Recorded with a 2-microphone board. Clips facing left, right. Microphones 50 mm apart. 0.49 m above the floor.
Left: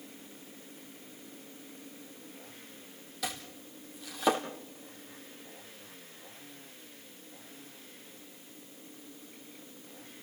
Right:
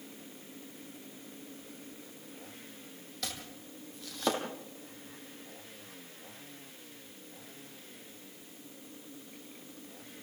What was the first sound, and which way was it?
Chopping, 10° left (ahead or behind).